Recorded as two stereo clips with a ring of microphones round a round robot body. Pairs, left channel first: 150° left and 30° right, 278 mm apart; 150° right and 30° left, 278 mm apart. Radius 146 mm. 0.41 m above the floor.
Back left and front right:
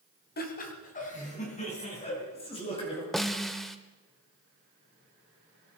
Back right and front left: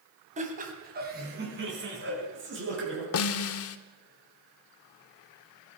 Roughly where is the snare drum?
Behind right.